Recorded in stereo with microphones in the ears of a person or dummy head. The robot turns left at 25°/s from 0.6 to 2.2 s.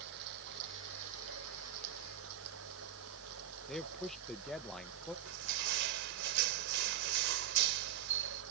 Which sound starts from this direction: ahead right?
Running water, at 0.0 s.